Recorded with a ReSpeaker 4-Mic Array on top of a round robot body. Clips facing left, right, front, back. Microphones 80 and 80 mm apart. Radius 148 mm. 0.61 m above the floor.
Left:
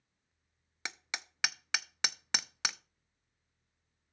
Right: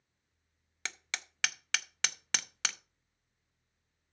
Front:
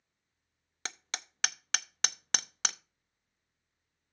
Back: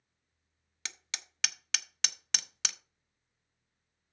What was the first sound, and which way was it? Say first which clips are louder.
Hammering: even, front 3 dB; 20° left.